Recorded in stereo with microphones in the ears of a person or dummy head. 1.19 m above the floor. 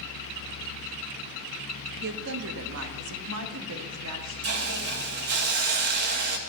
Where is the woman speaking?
60° right (ahead or behind), 1.3 m; by 5.1 s 70° right (ahead or behind), 2.5 m.